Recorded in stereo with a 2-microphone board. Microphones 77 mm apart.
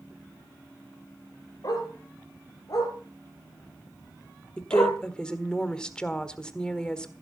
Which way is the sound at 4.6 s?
10° left (ahead or behind).